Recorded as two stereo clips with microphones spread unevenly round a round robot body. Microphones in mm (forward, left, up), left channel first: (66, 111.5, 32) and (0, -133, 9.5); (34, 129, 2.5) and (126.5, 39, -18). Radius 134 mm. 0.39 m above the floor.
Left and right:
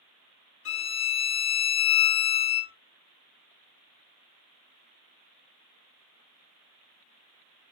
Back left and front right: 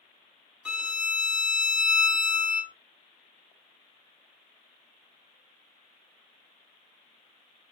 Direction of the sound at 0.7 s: 35° left.